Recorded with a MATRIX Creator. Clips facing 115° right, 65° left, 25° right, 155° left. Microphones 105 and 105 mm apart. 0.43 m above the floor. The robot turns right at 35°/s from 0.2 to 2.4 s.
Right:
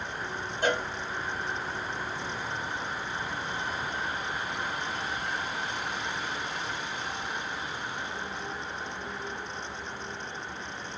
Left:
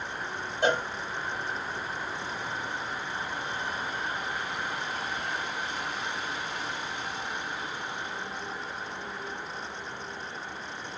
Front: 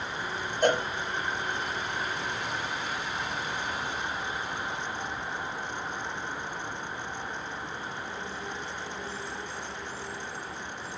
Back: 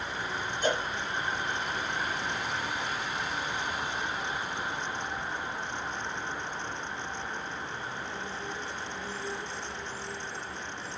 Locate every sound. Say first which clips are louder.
0.6 s a cowbell: left 2 dB, front 5 dB; 5° left, 2.5 m; by 0.8 s 15° left, 2.5 m